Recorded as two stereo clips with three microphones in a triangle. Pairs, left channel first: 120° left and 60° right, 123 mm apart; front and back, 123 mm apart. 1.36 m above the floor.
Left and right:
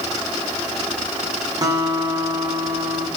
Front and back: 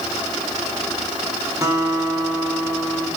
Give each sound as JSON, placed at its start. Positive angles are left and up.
{"t": 1.6, "sound": "a guitar", "azimuth_deg": -115, "distance_m": 2.0}